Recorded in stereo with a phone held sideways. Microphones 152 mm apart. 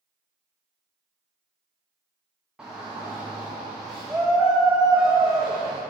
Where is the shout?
5° right (ahead or behind), 0.8 m.